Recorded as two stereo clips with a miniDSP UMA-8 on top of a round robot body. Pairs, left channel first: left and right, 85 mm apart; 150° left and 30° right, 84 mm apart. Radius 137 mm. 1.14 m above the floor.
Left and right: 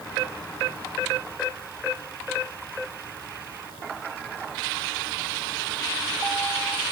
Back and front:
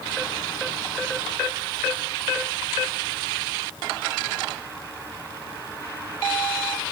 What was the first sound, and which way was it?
Only background noise.